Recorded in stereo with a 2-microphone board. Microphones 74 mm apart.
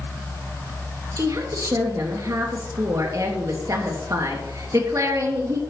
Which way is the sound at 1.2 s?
50° right (ahead or behind).